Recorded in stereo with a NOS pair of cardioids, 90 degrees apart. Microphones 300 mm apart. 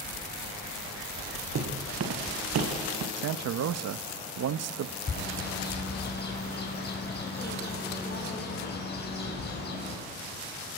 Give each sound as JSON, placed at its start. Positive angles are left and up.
{"t": 1.6, "sound": "footsteps", "azimuth_deg": -50, "distance_m": 3.5}
{"t": 3.2, "sound": "a man speaking", "azimuth_deg": -60, "distance_m": 0.9}
{"t": 5.1, "sound": "a bird", "azimuth_deg": 35, "distance_m": 6.5}